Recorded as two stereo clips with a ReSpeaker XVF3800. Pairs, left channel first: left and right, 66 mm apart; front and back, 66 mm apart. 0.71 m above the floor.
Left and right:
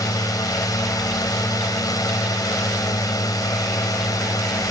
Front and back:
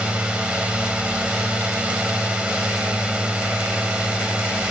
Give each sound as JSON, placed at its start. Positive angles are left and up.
{"t": 0.0, "sound": "a drone", "azimuth_deg": 105}